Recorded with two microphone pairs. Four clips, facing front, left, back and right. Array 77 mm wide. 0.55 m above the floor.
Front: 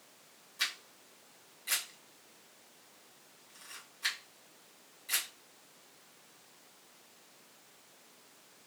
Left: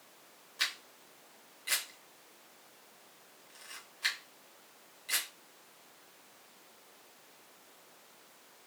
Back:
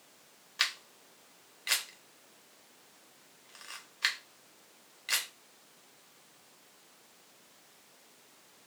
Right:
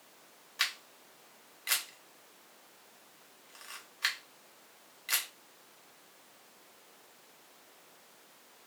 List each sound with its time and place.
0.6 s a camera shutter: 145° right, 0.9 m